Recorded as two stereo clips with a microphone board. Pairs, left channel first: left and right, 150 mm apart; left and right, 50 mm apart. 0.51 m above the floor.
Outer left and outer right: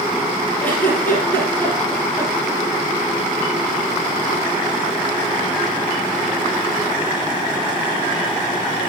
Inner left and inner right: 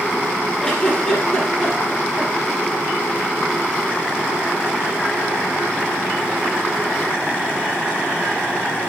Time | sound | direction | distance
0.6 | a giggle | 10° left (ahead or behind) | 3.5 m